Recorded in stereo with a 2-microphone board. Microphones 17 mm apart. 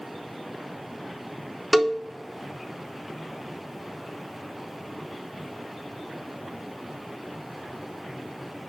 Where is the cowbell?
10° right (ahead or behind), 0.5 m.